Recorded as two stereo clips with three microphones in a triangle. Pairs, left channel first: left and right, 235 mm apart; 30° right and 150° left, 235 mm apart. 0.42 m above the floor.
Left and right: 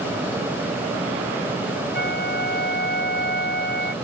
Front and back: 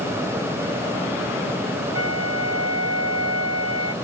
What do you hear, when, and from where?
1.9 s a flute: 135° left